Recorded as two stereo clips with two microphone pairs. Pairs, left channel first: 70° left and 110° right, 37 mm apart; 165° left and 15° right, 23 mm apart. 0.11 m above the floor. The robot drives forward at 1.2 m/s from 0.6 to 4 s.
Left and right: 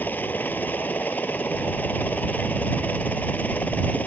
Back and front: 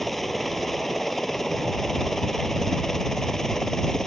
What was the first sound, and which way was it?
A helicopter, 85° left.